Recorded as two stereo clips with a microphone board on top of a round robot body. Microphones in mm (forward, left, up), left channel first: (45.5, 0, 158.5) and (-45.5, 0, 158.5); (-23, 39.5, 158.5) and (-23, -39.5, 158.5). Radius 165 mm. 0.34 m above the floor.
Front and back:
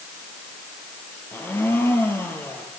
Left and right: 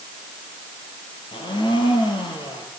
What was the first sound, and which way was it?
A blender, 70° left.